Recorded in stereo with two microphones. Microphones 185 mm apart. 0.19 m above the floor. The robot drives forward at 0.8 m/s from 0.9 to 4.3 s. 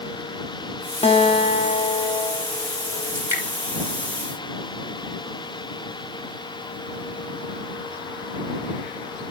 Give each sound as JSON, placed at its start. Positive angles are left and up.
{"t": 1.0, "sound": "a guitar", "side_deg": 30, "distance_m": 1.1}
{"t": 3.1, "sound": "dripping", "side_deg": -15, "distance_m": 4.0}